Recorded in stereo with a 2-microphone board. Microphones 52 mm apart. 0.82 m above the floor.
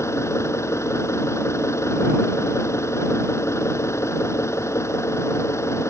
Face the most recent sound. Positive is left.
turn(degrees=65)  # may be behind; listen again after turning